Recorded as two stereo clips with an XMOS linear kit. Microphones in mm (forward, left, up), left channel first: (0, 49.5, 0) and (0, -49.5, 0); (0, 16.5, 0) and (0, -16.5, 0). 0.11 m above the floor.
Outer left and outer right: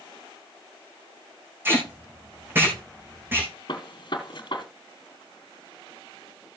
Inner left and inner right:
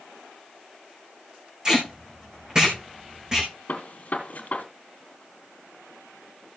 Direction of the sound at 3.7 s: 55° left (ahead or behind).